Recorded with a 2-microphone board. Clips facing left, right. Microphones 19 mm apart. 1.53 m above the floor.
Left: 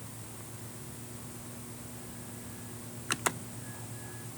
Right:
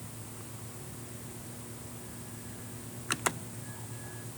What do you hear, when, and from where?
Only background noise.